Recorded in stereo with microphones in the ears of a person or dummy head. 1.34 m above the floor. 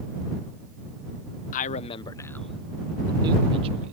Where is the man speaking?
45° left (ahead or behind); by 3.9 s 35° right (ahead or behind).